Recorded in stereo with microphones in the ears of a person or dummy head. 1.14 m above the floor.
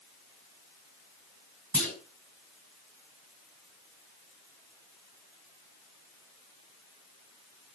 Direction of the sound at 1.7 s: 10° left (ahead or behind).